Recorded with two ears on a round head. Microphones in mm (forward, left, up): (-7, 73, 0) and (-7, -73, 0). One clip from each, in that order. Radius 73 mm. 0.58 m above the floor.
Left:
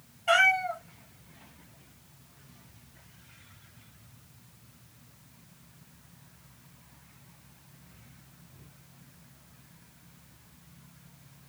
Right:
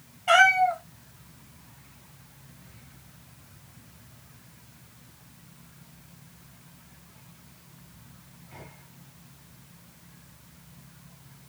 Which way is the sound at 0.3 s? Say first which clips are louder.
Right 4 dB; 10° left (ahead or behind).